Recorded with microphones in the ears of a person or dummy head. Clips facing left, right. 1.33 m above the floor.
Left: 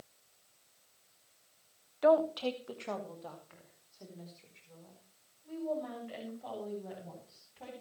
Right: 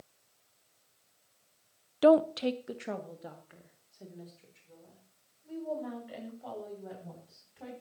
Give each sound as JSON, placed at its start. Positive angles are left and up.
{"t": 2.0, "sound": "a woman speaking", "side_deg": -40, "distance_m": 0.6}